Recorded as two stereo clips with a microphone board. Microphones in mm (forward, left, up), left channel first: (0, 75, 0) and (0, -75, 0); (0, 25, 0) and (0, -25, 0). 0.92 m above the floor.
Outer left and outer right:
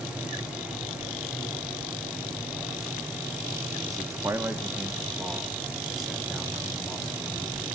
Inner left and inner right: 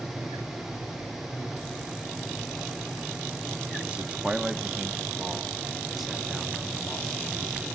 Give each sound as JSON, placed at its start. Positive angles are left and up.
{"t": 3.9, "sound": "a man speaking", "side_deg": -20, "distance_m": 0.9}